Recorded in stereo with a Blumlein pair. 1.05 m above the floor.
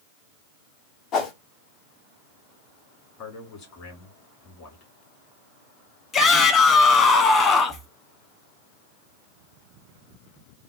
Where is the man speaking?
35° left, 2 m.